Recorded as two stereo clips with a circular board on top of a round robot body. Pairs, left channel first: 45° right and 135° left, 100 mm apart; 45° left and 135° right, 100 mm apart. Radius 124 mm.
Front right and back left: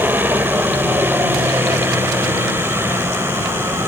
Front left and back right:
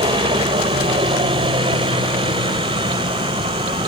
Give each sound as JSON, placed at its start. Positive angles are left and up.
{"t": 0.0, "sound": "a helicopter", "azimuth_deg": -155}